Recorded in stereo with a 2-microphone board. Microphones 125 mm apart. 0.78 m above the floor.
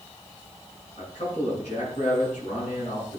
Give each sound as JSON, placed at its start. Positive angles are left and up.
{"t": 1.0, "sound": "a man speaking", "side_deg": 75, "distance_m": 7.5}